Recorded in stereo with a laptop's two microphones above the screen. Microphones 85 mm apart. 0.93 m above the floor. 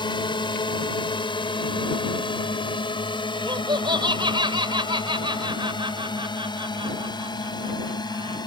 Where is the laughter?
75° right (ahead or behind).